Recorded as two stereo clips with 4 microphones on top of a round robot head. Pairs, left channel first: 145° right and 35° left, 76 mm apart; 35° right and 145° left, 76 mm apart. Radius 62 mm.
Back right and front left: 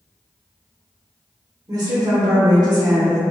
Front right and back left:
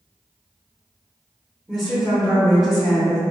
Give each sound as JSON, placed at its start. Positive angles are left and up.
{"t": 1.7, "sound": "a woman speaking", "azimuth_deg": 55, "distance_m": 0.8}